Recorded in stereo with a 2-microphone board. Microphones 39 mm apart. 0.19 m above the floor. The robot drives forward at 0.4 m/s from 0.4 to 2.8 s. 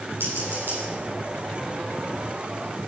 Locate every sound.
0.2 s scissors: 80° right, 6.5 m